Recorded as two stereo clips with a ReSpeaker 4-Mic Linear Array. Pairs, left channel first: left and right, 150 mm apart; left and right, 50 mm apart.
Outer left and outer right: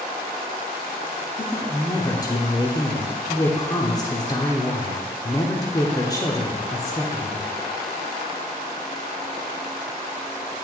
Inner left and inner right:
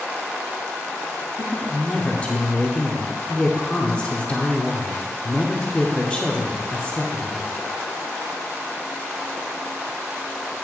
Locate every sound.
1.4 s a woman speaking: 25° left (ahead or behind), 0.8 m